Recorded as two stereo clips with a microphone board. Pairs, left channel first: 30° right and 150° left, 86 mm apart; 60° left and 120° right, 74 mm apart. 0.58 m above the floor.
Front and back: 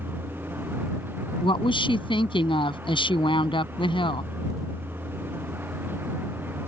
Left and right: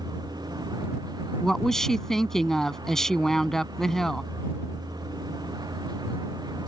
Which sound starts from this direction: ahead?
A woman speaking, at 1.4 s.